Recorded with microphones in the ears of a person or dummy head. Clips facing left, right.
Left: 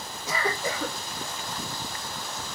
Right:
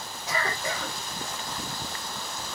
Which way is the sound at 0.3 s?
75° left (ahead or behind).